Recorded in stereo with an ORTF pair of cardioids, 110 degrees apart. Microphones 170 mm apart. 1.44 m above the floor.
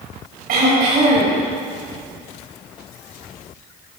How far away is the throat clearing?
About 5 m.